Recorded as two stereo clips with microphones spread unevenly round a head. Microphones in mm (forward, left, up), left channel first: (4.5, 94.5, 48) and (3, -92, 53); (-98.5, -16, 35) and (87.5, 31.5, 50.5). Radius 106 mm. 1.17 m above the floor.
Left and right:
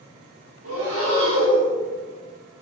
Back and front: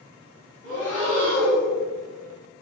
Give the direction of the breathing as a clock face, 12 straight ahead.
3 o'clock.